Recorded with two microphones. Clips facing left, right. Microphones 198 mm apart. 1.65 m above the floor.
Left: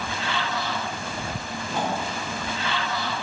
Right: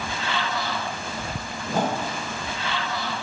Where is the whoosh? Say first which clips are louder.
Right 3 dB; 45° right (ahead or behind), 1.2 m.